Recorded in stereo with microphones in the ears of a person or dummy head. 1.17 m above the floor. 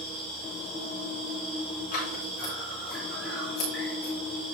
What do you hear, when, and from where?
0.0 s an insect: 5° right (ahead or behind), 3 m
1.9 s scissors: 50° left (ahead or behind), 3.5 m